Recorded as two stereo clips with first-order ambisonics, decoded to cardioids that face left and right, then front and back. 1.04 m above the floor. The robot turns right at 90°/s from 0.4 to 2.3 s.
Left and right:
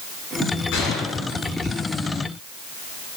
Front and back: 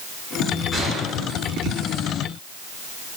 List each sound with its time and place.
0.7 s a gunshot: 70° left, 7 m; by 2.0 s 170° right, 7 m